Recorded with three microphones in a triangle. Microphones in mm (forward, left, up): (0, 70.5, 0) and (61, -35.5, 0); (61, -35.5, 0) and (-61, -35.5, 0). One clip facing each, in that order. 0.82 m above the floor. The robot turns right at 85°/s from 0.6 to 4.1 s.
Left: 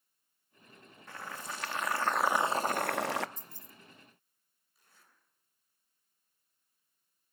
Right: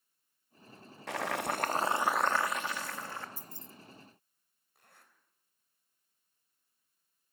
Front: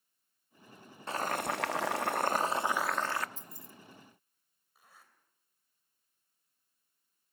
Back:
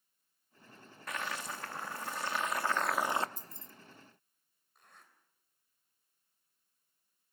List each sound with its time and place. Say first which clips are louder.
1.1 s boiling: right 10 dB, front 7 dB; 65° right, 0.6 m; by 3.3 s 120° left, 0.6 m
3.4 s keys jangling: right 3 dB, front 2 dB; 140° right, 0.6 m; by 3.7 s 110° right, 0.6 m
4.8 s a zipper: right 4 dB, even; 85° right, 3.5 m